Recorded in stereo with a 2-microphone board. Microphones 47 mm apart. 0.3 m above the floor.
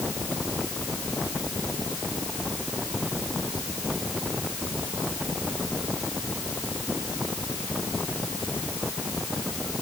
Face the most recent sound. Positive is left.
No sound to turn to.